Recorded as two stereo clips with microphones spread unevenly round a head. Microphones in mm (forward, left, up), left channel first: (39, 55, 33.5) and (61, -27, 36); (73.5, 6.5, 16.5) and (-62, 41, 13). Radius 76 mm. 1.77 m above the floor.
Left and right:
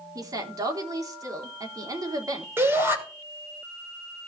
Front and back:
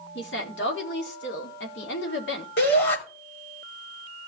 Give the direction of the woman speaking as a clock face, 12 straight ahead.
1 o'clock.